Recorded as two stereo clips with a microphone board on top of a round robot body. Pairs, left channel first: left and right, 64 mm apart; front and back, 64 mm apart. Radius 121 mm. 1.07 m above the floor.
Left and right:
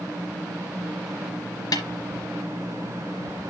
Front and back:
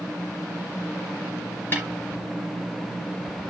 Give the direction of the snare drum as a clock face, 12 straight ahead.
10 o'clock.